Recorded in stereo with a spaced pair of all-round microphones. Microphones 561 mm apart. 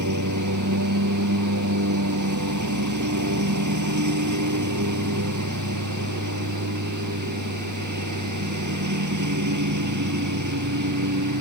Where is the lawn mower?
30° right (ahead or behind).